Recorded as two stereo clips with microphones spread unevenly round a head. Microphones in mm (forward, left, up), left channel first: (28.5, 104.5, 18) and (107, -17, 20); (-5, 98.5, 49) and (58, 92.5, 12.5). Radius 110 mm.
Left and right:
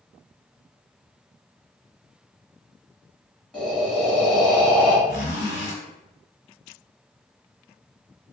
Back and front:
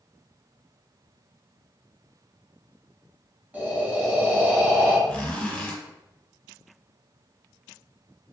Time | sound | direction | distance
3.5 | breathing | 40° left | 1.5 m
5.1 | a zipper | 120° left | 1.8 m